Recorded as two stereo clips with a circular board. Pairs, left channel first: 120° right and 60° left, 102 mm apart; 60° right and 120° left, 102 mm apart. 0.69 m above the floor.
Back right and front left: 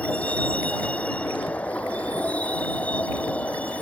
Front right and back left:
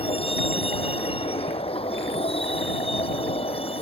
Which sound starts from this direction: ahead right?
A vehicle, at 0.0 s.